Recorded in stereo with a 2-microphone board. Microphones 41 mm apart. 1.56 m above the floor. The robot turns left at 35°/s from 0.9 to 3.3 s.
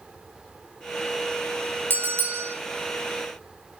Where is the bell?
60° right (ahead or behind), 3 m; by 2.6 s 65° right (ahead or behind), 3 m.